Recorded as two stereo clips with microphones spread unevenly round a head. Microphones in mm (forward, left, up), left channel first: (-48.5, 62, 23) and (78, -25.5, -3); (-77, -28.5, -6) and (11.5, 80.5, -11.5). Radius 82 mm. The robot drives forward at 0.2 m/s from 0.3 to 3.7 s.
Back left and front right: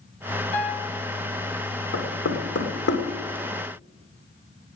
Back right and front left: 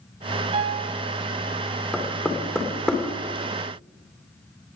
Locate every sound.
0.5 s a piano: 95° left, 2.5 m; by 1.0 s 100° left, 2.5 m
1.9 s knocking: 145° left, 2.5 m; by 3.0 s 150° left, 3 m